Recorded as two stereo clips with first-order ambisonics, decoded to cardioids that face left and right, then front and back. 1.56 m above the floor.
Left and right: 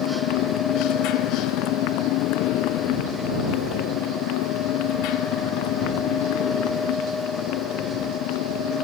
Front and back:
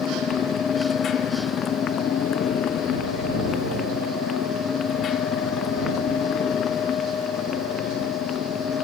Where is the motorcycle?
60° left; by 8.8 s 65° left.